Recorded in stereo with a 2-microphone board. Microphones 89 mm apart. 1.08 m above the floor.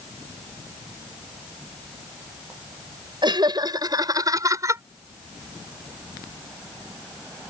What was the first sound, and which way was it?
Laughter, 55° right (ahead or behind).